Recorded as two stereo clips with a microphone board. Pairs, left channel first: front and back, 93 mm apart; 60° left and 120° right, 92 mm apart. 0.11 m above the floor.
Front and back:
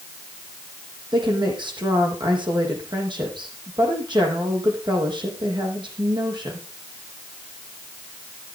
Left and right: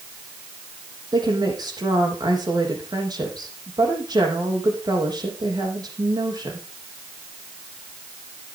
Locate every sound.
1.1 s a woman speaking: 155° right, 5.5 m